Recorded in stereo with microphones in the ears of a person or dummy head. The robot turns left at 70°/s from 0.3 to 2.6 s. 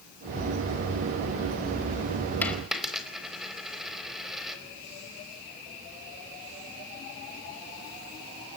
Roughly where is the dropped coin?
Centre.